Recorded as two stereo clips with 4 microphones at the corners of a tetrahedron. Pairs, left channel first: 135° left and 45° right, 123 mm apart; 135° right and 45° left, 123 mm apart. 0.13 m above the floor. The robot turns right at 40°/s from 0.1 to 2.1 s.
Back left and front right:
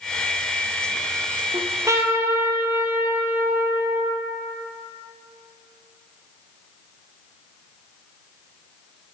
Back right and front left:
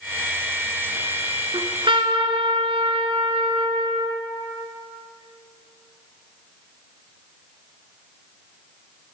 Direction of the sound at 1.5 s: Straight ahead.